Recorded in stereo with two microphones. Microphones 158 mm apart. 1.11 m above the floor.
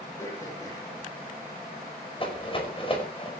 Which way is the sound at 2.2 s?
35° left (ahead or behind).